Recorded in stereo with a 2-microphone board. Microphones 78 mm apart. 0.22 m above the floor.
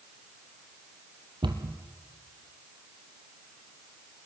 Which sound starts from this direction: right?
A cupboard door, at 1.4 s.